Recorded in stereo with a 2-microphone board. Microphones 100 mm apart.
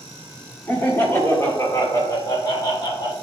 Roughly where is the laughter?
Centre.